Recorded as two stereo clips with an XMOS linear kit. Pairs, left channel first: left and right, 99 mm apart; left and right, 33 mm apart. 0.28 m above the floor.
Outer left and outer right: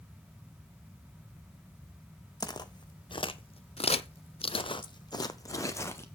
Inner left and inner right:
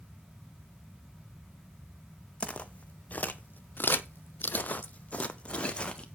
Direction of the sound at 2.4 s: 35° left (ahead or behind).